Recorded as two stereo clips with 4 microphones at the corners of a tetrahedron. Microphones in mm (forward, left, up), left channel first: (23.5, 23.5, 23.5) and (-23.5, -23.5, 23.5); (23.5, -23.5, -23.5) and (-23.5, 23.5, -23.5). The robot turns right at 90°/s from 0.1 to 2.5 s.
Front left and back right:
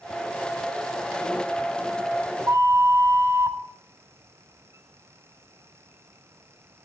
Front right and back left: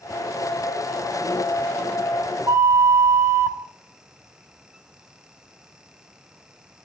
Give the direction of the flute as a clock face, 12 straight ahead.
6 o'clock.